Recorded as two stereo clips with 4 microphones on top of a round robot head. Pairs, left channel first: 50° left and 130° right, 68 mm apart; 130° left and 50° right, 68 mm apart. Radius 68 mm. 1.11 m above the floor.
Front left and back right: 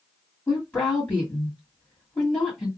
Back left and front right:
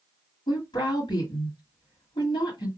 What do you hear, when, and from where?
0.5 s a woman speaking: 120° left, 1.8 m